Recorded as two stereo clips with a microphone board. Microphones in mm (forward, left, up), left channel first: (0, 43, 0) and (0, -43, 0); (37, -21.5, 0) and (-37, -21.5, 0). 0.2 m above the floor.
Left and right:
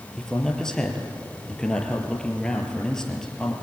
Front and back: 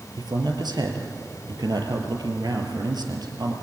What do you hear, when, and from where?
0.2 s a man speaking: 175° left, 3.5 m